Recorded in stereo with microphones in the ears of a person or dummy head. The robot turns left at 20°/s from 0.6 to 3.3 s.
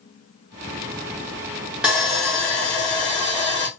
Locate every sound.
1.8 s sawing: centre (ahead or behind), 1.1 m; by 3.7 s 30° left (ahead or behind), 1.1 m